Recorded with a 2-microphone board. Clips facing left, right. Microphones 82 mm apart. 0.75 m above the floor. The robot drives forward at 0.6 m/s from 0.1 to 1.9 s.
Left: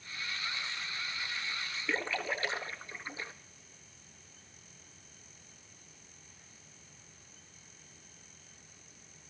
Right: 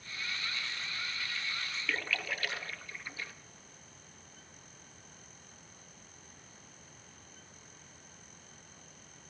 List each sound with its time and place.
1.9 s a splash: 25° left (ahead or behind), 0.6 m